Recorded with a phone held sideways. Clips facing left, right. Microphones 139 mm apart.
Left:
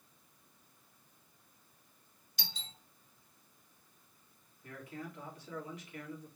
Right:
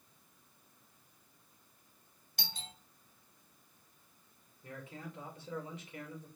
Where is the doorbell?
50° right (ahead or behind), 1.4 m.